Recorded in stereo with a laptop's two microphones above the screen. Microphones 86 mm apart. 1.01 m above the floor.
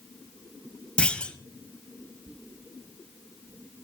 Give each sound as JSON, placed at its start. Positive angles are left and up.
{"t": 1.0, "sound": "a clunk", "side_deg": 10, "distance_m": 0.8}